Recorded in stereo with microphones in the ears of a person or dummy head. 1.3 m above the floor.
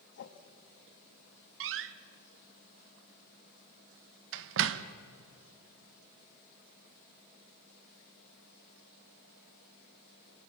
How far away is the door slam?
About 0.8 m.